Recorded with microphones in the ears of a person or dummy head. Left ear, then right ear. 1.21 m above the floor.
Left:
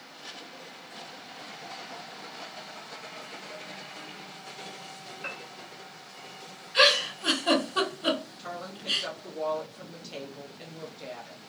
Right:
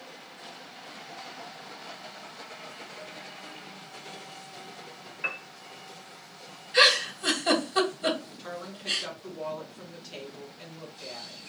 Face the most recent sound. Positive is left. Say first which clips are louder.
# even
turn(degrees=0)  # may be behind; listen again after turning